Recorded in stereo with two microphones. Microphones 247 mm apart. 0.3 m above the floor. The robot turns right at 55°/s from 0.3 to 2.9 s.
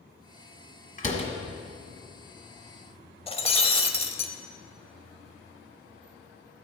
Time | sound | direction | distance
1.0 | a door slam | 35° left (ahead or behind) | 1.4 m
3.3 | breaking glass | 20° left (ahead or behind) | 0.7 m